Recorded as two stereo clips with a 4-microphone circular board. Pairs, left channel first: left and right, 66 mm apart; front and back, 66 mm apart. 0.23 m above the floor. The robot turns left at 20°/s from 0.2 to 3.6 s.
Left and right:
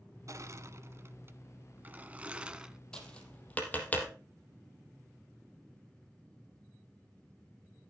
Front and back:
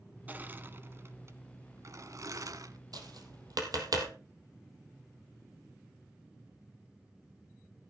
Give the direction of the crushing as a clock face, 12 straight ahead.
4 o'clock.